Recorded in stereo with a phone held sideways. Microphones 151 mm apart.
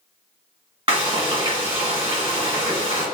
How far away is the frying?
About 1.8 m.